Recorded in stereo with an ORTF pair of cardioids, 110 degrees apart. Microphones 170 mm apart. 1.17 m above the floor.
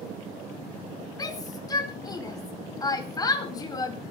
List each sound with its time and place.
1.2 s a shout: 20° left, 4.5 m